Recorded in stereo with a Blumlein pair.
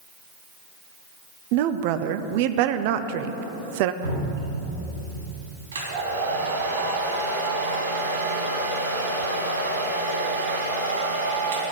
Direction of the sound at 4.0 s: 70° right.